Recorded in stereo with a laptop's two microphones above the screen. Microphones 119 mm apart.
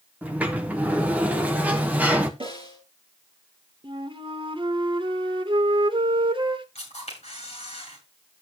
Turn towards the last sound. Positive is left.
turn(degrees=60)  # may be behind; listen again after turning